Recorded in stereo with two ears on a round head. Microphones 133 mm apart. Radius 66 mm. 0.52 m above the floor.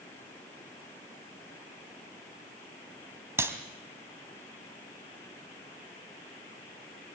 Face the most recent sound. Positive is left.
turn(degrees=-20)  # may be behind; listen again after turning